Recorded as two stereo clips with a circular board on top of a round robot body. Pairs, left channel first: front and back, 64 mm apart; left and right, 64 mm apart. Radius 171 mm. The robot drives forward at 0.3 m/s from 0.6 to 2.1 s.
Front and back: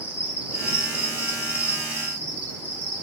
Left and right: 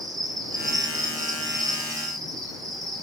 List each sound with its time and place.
0.0 s an insect: 120° right, 8 m